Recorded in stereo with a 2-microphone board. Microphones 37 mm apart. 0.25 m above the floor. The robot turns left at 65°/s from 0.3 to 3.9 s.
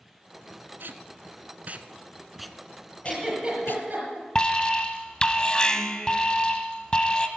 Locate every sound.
0.8 s tape being pulled: 70° right (ahead or behind), 0.7 m; by 3.8 s 80° left, 0.7 m
3.0 s a giggle: 5° left (ahead or behind), 6.5 m; by 4.2 s 50° right (ahead or behind), 6.5 m
4.3 s an alarm: 25° left (ahead or behind), 1.1 m